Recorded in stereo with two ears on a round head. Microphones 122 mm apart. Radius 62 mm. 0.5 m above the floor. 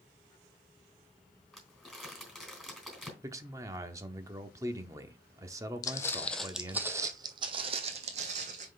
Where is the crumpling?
Centre (ahead or behind), 3.5 m.